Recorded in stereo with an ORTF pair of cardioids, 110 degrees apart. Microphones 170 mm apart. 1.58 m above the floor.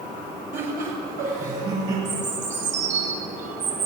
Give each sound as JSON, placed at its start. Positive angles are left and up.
{"t": 0.5, "sound": "laughter", "azimuth_deg": -55, "distance_m": 7.5}
{"t": 2.0, "sound": "a bird", "azimuth_deg": -45, "distance_m": 6.5}